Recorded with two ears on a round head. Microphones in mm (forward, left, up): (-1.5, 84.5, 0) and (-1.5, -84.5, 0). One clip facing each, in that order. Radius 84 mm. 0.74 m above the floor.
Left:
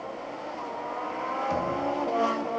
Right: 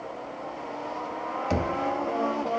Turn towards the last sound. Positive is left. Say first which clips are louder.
# right 2 dB
turn(degrees=-70)  # may be behind; listen again after turning